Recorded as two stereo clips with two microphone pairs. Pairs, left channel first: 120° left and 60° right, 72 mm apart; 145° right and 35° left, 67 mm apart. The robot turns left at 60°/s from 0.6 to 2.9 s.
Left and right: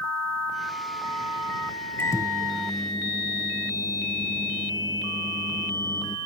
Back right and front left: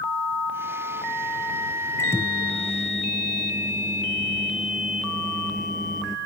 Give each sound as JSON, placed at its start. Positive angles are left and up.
{"t": 2.0, "sound": "a microwave", "azimuth_deg": 175}